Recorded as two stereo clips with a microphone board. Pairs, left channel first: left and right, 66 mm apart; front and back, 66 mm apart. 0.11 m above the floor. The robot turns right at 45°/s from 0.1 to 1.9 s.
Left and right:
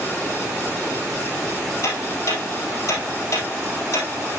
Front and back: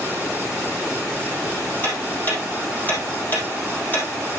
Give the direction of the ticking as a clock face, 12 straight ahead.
10 o'clock.